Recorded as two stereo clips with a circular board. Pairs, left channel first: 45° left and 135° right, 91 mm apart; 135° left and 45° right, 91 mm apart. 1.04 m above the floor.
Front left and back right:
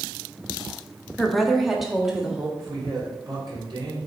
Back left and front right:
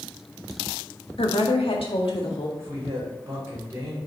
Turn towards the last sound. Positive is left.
turn(degrees=-100)